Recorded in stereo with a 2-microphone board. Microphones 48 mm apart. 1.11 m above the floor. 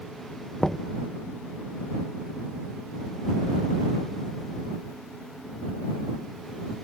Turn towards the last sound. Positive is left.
turn(degrees=10)  # may be behind; listen again after turning